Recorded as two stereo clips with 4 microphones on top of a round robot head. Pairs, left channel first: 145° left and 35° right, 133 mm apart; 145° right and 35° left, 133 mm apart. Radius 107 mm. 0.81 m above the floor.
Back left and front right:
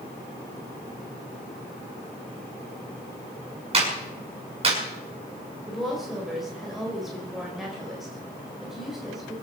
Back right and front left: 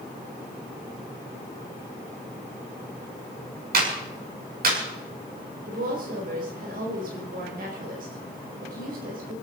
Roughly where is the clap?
Ahead.